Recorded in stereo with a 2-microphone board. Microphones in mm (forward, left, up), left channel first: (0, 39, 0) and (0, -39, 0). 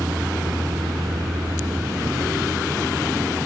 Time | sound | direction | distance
0.0 | a vehicle | 85° right | ?